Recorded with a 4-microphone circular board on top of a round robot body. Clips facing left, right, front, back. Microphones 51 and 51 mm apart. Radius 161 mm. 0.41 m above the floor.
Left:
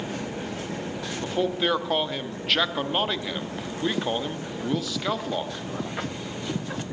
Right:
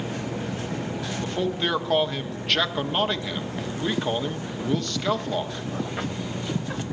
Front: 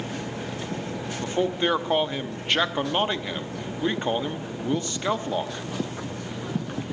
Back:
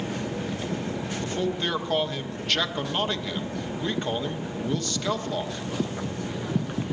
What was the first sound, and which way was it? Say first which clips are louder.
A man speaking: left 2 dB, front 5 dB; 10° left.